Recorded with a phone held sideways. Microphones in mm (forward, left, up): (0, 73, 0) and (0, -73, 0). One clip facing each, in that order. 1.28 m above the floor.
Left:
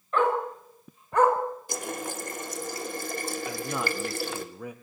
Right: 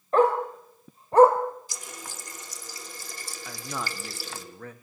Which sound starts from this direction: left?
A running tap, at 1.7 s.